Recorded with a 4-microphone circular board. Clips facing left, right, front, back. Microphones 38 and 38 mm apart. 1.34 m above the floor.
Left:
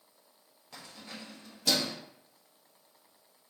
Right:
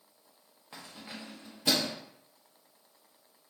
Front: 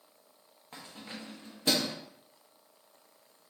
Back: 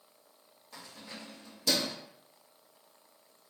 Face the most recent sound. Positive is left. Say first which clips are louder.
# right 1 dB, front 2 dB
turn(degrees=-35)